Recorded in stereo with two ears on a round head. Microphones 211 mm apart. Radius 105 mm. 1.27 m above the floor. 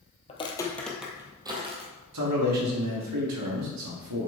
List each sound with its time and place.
0.3 s footsteps: 25° left (ahead or behind), 1.4 m; by 1.9 s 25° right (ahead or behind), 2 m
2.1 s a man speaking: 85° right, 2 m